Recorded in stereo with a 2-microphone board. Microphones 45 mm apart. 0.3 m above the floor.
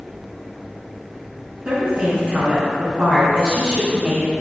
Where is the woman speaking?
40° right (ahead or behind), 3.5 m.